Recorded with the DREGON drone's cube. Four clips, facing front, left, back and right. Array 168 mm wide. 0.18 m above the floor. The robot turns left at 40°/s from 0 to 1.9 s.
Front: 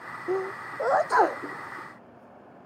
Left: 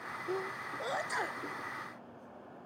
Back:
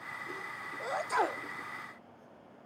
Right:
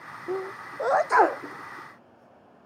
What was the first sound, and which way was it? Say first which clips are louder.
A sneeze: right 6 dB, front 18 dB; 20° right.